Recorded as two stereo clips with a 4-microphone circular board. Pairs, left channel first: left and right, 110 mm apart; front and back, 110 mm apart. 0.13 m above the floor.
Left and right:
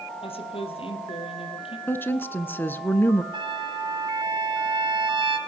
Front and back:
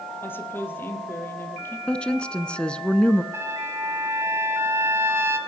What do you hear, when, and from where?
0.2 s a woman speaking: 70° left, 3 m
1.9 s a woman speaking: 60° left, 1.1 m
3.3 s a trumpet: 120° right, 2 m